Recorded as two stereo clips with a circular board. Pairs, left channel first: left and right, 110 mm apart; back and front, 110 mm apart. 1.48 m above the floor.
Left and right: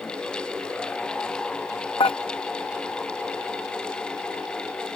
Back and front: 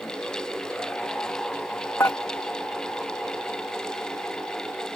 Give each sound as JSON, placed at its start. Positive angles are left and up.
{"t": 2.0, "sound": "dishes clattering", "azimuth_deg": 120}